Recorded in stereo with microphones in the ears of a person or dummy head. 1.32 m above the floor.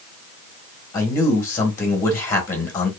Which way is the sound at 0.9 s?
20° left (ahead or behind).